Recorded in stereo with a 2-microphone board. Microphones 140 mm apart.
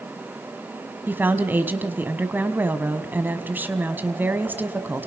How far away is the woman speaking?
About 1.5 m.